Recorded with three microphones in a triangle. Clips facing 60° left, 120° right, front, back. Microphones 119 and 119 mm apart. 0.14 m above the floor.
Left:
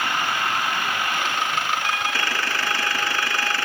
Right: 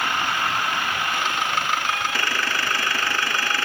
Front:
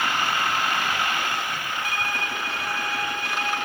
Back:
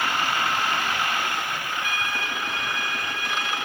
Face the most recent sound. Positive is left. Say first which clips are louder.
# even, front 1 dB
turn(degrees=55)